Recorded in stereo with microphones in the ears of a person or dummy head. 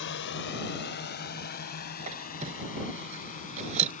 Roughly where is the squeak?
Right.